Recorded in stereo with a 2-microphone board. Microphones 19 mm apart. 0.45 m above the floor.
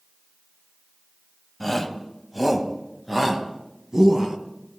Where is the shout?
10° left (ahead or behind), 2.5 m; by 4.4 s 30° right (ahead or behind), 3.5 m.